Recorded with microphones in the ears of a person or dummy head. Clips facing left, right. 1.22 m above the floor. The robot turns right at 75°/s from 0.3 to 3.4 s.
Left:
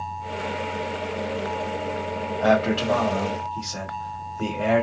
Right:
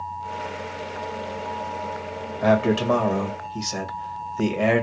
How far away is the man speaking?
About 1.2 m.